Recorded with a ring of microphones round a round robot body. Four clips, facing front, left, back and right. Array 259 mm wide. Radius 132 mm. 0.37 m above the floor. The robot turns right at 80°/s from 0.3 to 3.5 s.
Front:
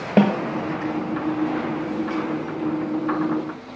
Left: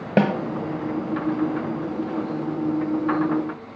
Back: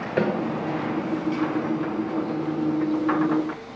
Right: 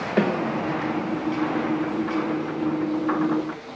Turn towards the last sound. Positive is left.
turn(degrees=-65)